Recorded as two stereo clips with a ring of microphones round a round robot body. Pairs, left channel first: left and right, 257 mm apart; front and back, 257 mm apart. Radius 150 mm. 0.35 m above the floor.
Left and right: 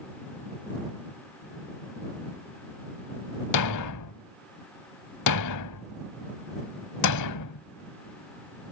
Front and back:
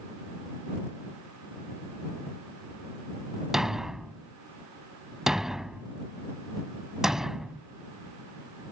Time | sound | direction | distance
3.5 | a thud | 90° left | ?